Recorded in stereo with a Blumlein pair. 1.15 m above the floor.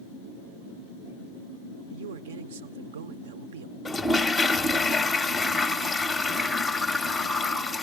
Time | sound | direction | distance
1.9 | a man speaking | 60° right | 0.8 m
3.9 | a toilet flushing | 10° left | 0.7 m